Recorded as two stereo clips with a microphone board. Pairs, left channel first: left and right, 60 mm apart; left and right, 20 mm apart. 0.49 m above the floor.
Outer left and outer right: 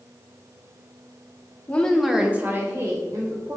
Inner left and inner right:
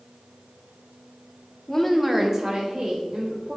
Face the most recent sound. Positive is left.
turn(degrees=-65)  # may be behind; listen again after turning